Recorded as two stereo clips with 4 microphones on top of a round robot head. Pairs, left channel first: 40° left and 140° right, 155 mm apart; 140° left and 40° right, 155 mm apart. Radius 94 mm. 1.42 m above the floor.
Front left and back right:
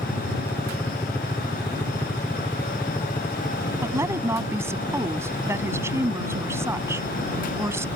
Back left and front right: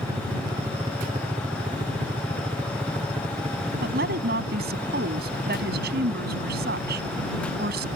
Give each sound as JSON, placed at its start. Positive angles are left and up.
{"t": 0.0, "sound": "a helicopter", "azimuth_deg": -15}
{"t": 3.8, "sound": "a woman speaking", "azimuth_deg": -65}